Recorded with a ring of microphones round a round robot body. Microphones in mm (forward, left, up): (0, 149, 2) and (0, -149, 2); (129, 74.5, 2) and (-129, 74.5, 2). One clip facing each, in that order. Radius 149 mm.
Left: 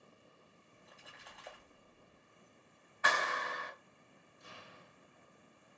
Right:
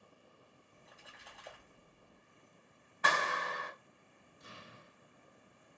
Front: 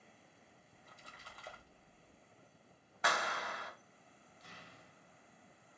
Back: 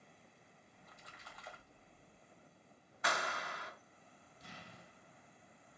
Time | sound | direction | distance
0.7 | a splash | straight ahead | 0.7 m
3.0 | a clap | 35° right | 1.7 m
4.4 | an explosion | 160° right | 0.6 m